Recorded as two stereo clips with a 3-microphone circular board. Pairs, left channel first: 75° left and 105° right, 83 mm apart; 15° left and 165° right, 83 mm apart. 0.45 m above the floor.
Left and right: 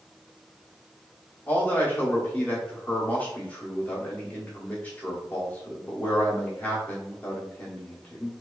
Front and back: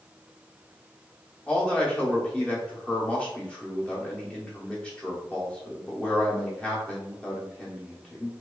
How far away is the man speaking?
About 0.7 m.